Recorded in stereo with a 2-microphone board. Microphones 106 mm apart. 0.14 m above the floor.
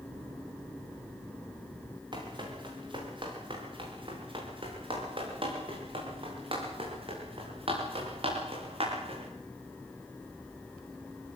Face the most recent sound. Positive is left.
turn(degrees=-60)  # may be behind; listen again after turning